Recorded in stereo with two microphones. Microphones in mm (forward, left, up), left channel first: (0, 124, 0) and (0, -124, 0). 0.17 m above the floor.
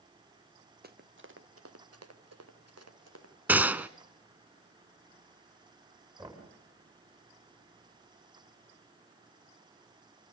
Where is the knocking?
20° right (ahead or behind), 8.5 m.